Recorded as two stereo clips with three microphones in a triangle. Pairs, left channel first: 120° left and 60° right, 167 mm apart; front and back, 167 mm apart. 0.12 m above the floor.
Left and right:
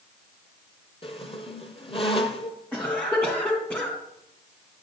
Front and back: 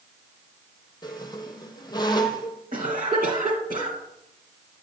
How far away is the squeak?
About 0.9 m.